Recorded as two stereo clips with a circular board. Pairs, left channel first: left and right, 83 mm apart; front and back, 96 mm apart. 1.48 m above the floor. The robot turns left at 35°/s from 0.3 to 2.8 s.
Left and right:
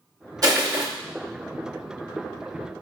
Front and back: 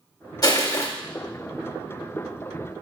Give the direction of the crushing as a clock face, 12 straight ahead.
2 o'clock.